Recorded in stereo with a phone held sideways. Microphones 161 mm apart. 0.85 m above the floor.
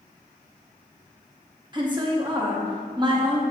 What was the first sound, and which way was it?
A woman speaking, 30° right (ahead or behind).